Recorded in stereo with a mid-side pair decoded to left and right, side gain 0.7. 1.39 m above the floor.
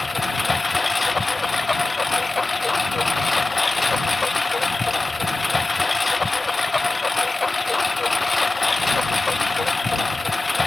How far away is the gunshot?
I don't hear a gunshot.